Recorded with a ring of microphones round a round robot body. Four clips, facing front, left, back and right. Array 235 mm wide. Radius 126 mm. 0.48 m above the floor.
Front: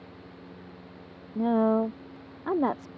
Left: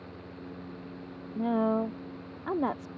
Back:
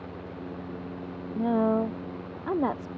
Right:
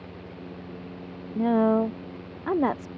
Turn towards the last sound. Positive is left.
turn(degrees=-85)